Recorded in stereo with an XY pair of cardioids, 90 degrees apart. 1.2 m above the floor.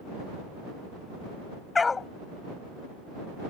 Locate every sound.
1.8 s a dog barking: 40° left